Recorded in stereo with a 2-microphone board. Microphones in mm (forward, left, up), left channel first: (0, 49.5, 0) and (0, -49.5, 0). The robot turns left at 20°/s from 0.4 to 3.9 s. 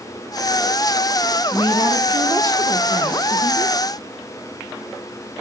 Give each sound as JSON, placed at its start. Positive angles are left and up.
{"t": 1.5, "sound": "a woman speaking", "azimuth_deg": -55, "distance_m": 1.5}